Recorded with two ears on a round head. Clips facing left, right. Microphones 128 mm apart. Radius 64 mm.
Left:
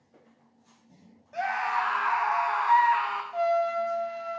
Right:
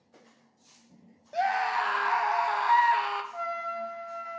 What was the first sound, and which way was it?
A scream, 40° right (ahead or behind).